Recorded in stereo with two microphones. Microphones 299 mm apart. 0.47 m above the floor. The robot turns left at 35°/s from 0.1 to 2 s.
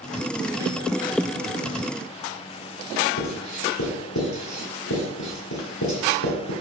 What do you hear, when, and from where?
3.2 s writing: 70° left (ahead or behind), 2.5 m